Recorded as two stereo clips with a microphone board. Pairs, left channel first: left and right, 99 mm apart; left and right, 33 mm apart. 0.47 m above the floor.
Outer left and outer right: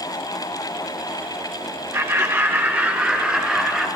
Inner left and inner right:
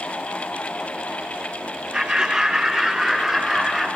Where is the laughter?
30° right (ahead or behind), 1.0 m; by 3.9 s 5° right (ahead or behind), 2 m.